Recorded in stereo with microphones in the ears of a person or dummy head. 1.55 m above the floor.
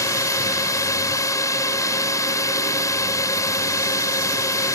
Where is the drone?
15° left (ahead or behind).